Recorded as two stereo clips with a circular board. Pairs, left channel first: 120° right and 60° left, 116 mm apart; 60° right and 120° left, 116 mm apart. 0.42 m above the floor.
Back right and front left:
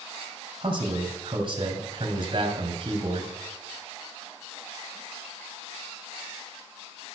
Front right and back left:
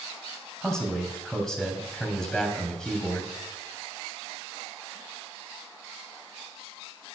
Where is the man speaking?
25° left, 3 m.